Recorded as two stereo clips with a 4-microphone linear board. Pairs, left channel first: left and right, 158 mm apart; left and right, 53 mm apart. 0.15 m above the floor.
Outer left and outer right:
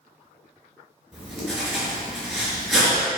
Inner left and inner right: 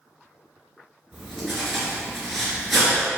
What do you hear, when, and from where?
1.1 s writing: centre (ahead or behind), 3 m